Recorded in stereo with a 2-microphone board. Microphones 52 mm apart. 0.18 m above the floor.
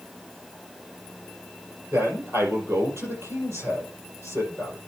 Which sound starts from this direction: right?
A man speaking, at 1.9 s.